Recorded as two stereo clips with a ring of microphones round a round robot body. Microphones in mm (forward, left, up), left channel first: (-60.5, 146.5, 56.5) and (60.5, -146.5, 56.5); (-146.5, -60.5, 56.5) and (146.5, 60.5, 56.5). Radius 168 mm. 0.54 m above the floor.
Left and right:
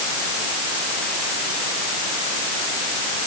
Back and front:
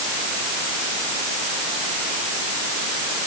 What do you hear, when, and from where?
Only background noise.